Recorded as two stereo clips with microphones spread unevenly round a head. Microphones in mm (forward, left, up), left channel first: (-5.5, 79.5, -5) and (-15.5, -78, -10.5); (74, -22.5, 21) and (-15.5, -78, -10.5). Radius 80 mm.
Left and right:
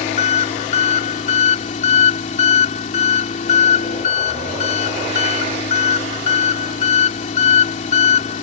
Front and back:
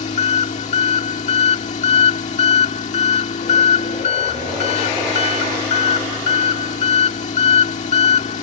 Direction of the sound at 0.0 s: 40° left.